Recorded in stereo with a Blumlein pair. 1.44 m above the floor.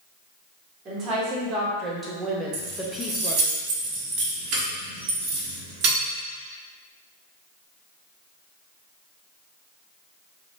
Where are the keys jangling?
40° right, 1.7 m.